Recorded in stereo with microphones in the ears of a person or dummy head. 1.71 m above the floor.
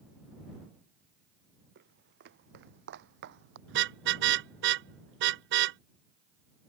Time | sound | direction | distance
1.8 | footsteps | 55° right (ahead or behind) | ?
3.7 | a car horn | 60° right (ahead or behind) | ?